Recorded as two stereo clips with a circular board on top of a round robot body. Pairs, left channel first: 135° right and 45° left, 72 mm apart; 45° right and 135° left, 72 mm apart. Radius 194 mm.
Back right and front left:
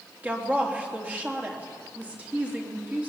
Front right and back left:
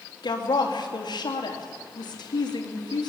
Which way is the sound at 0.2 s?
25° right.